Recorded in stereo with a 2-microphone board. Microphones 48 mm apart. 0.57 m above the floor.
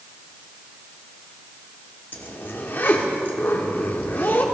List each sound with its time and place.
2.1 s a zipper: 45° left (ahead or behind), 1.5 m